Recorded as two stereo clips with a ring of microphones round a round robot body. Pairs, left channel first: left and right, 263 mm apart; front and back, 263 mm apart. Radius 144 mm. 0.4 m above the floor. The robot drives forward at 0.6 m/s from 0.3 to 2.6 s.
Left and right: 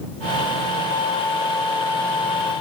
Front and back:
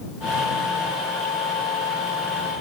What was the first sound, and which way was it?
Only background noise.